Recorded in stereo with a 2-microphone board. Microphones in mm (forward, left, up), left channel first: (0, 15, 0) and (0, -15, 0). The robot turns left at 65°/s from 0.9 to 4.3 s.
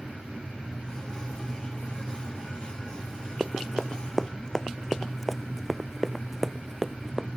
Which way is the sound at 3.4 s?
20° right (ahead or behind).